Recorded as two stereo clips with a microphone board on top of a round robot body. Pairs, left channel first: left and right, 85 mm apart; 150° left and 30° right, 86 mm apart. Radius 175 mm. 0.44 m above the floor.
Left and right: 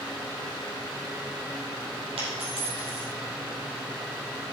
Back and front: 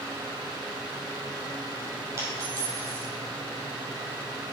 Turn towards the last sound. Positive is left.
turn(degrees=-85)